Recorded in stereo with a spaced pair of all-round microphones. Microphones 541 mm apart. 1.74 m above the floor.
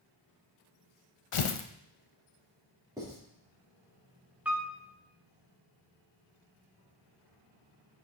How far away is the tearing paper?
About 0.6 m.